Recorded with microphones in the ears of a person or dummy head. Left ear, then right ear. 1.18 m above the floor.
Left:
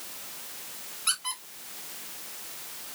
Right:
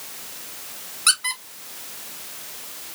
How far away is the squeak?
About 2.5 m.